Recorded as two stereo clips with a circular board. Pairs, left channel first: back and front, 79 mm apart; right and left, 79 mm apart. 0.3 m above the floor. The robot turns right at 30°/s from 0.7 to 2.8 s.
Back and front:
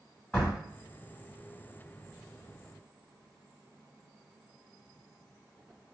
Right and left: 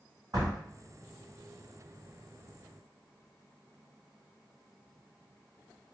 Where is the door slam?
100° left, 1.6 m.